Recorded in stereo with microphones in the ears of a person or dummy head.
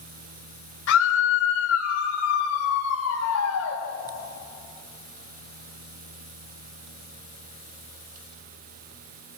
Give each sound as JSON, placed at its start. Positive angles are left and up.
{"t": 0.9, "sound": "a scream", "side_deg": 70, "distance_m": 4.5}